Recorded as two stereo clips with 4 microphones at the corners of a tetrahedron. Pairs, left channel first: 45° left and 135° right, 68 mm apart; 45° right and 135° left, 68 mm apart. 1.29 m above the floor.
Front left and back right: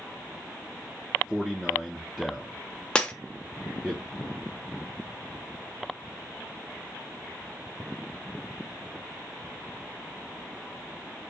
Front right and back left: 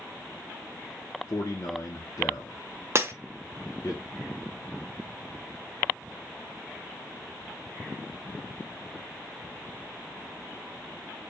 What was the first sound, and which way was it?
A man speaking, 60° right.